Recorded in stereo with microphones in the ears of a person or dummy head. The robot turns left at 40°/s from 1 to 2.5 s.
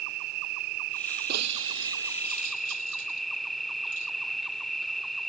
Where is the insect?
120° right; by 5.3 s straight behind.